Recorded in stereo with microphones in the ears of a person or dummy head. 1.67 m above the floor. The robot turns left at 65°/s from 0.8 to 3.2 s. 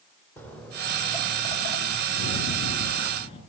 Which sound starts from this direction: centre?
Footsteps, at 0.4 s.